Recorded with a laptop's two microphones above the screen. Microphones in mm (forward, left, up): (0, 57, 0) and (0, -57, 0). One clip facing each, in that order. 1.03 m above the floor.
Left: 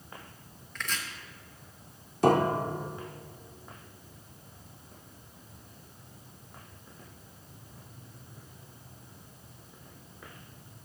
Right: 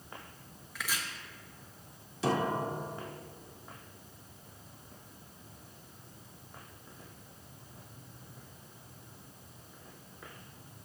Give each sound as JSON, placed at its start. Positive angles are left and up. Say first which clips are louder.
{"t": 0.8, "sound": "chopping", "louder": "left 1 dB", "side_deg": -5, "distance_m": 0.7}
{"t": 2.2, "sound": "a piano", "louder": "left 7 dB", "side_deg": 50, "distance_m": 0.5}